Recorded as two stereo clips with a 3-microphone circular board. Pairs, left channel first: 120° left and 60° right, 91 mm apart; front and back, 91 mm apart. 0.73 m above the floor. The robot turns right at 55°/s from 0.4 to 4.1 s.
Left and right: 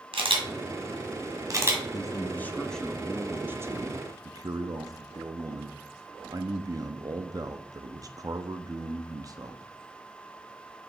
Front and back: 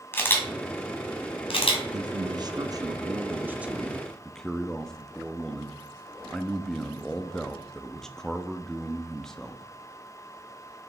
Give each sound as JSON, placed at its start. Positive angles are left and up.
{"t": 0.1, "sound": "a camera shutter", "azimuth_deg": -70, "distance_m": 1.6}
{"t": 1.9, "sound": "a man speaking", "azimuth_deg": 155, "distance_m": 0.6}